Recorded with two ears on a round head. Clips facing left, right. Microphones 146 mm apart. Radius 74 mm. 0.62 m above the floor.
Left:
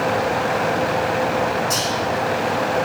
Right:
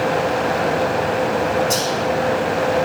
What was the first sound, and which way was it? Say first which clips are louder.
Whispering: right 3 dB; 35° right (ahead or behind).